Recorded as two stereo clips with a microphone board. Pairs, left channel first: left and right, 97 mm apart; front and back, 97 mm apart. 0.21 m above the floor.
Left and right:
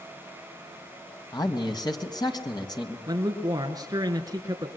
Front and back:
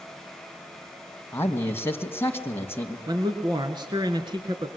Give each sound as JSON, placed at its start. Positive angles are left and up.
{"t": 1.3, "sound": "a man speaking", "azimuth_deg": 60, "distance_m": 1.9}
{"t": 3.1, "sound": "a man speaking", "azimuth_deg": -140, "distance_m": 3.0}